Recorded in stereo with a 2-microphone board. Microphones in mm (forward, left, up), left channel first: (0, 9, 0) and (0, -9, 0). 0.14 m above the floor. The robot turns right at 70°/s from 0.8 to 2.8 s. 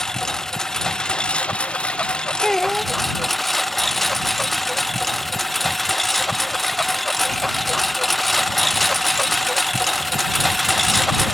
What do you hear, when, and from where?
0.0 s a lawn mower: 30° left (ahead or behind); by 11.3 s 5° right (ahead or behind)
2.4 s a child speaking: 15° left (ahead or behind); by 2.9 s 10° right (ahead or behind)